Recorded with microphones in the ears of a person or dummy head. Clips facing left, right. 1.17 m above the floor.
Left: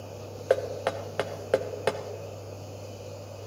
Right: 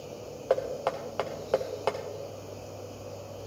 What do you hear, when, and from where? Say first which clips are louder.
0.5 s knocking: left 2 dB; 20° left (ahead or behind), 0.6 m